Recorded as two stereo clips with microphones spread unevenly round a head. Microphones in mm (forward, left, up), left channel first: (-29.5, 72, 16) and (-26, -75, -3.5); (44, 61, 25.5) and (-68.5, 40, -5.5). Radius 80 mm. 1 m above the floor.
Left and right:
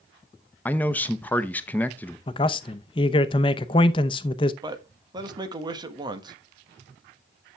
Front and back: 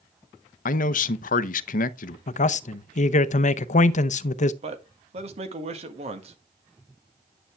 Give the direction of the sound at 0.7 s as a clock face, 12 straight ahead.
12 o'clock.